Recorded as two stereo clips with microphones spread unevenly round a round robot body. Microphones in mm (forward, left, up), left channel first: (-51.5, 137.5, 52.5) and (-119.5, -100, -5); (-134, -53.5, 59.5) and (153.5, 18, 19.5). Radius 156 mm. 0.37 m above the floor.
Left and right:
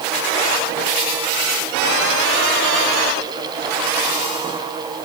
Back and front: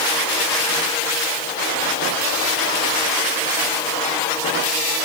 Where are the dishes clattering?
No dishes clattering in this recording.